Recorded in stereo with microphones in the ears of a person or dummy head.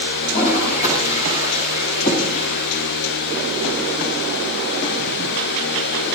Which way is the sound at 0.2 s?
40° left (ahead or behind).